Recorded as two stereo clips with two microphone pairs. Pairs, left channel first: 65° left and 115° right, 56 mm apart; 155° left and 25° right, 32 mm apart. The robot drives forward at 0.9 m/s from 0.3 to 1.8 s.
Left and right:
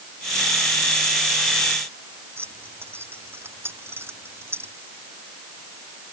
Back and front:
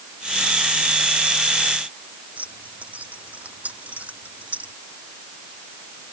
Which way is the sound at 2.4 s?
65° right.